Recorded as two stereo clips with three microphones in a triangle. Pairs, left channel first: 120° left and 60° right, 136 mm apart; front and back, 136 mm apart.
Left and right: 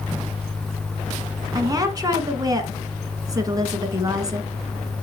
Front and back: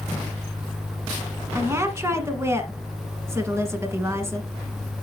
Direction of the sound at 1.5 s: 115° right.